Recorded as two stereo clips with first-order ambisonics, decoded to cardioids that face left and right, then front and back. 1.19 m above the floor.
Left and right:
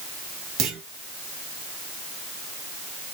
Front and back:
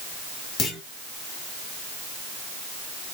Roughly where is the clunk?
Ahead right.